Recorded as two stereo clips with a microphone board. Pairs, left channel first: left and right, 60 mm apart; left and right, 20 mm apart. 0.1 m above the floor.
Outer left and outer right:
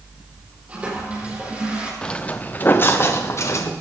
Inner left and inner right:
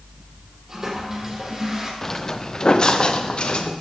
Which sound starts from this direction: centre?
Footsteps, at 2.0 s.